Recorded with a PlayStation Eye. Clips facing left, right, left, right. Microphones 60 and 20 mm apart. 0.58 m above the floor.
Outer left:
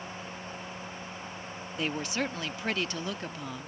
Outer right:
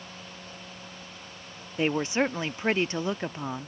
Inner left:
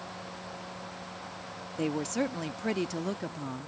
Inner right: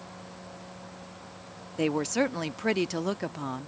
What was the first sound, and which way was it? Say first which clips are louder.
A woman speaking: outer right 7 dB, inner right 4 dB; 30° right (ahead or behind).